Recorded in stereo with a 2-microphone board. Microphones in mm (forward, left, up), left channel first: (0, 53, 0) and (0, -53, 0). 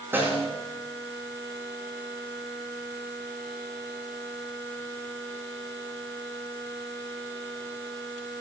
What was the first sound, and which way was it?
A snare drum, 20° right (ahead or behind).